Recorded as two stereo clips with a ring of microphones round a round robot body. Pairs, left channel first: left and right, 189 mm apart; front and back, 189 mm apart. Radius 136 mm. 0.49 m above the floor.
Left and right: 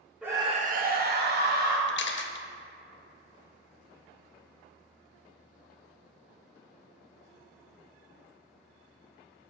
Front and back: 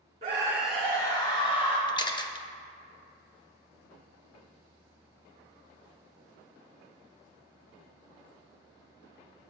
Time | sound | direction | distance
0.2 | a scream | 170° right | 0.8 m
1.9 | a camera shutter | 70° left | 0.7 m